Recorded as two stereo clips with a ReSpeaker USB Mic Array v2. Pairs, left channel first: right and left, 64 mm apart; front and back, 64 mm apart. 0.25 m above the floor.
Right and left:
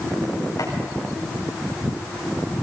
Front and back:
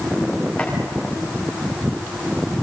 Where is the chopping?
75° right, 9 m.